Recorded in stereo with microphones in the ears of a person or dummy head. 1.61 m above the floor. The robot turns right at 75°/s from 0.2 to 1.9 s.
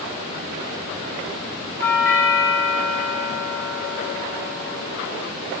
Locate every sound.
1.8 s a doorbell: 20° left (ahead or behind), 4 m; by 5.0 s 10° left (ahead or behind), 4 m